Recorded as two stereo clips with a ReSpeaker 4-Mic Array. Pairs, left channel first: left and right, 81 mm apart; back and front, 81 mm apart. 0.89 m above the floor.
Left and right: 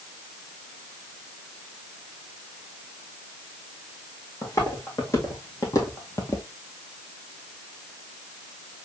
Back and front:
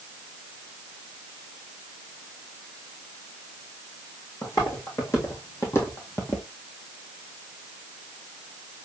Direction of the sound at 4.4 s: 140° left.